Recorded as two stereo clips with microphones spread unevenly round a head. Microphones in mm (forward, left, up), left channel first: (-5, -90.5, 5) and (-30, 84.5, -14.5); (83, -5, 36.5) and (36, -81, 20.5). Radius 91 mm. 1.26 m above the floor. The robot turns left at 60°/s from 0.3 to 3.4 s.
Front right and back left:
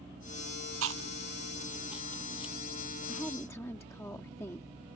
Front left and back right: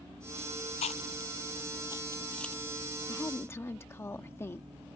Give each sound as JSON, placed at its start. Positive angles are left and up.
{"t": 0.8, "sound": "chewing", "azimuth_deg": 80}
{"t": 3.1, "sound": "a woman speaking", "azimuth_deg": 15}